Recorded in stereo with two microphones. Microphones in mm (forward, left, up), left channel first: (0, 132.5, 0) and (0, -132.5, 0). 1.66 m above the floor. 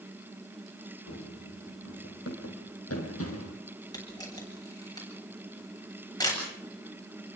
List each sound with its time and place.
1.1 s running footsteps: 60° left (ahead or behind), 5 m
3.9 s a camera shutter: 15° left (ahead or behind), 8 m